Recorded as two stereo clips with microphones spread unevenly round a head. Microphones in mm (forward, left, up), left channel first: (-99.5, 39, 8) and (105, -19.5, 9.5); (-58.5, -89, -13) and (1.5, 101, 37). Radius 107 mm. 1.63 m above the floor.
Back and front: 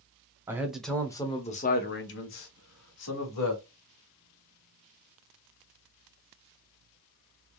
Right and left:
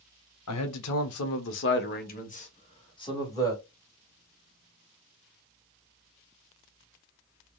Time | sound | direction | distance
0.5 | a man speaking | 95° right | 0.9 m